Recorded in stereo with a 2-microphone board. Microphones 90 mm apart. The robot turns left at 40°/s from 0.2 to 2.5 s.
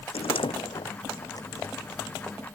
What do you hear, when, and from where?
0.1 s a door slam: 85° left; by 2.4 s 5° left (ahead or behind)